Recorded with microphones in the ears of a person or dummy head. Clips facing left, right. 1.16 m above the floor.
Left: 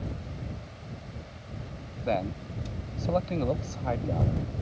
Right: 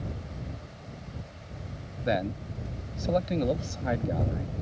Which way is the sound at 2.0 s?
15° right (ahead or behind).